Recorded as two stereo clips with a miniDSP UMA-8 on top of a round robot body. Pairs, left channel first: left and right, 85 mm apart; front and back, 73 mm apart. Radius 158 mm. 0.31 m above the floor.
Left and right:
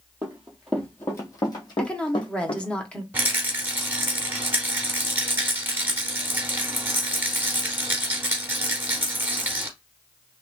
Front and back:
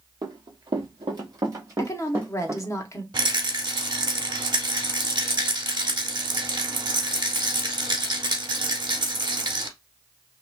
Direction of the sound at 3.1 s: 155° right.